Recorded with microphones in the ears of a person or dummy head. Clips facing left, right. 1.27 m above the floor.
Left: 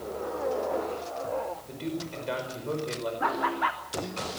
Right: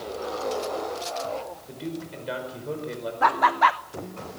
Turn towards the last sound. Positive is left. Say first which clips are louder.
# right 10 dB
turn(degrees=-70)  # may be behind; listen again after turning